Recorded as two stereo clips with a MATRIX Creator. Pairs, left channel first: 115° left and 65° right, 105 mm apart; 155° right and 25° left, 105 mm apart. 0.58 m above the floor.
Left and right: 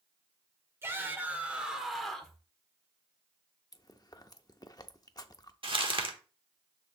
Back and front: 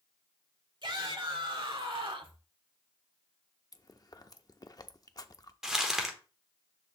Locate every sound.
0.8 s a shout: 5° right, 1.8 m; by 2.4 s 35° left, 1.5 m
3.7 s chewing: 155° left, 0.5 m
5.6 s crumpling: 60° right, 1.2 m